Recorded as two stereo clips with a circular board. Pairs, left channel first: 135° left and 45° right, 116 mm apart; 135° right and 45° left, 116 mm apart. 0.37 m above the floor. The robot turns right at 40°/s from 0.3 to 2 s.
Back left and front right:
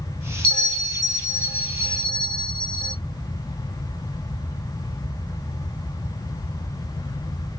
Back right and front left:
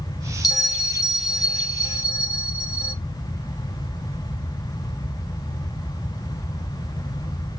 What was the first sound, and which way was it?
A bell, 155° right.